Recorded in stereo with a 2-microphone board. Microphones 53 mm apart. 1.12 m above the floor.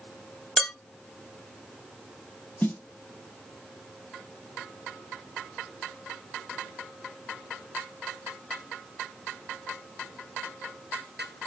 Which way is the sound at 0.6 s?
10° left (ahead or behind).